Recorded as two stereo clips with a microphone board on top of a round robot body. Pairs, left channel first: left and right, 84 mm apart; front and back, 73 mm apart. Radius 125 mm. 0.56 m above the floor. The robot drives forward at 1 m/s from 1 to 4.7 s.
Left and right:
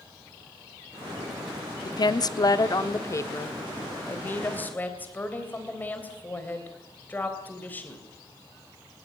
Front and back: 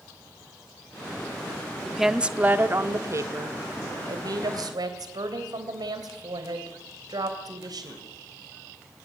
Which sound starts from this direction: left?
A woman speaking, at 1.9 s.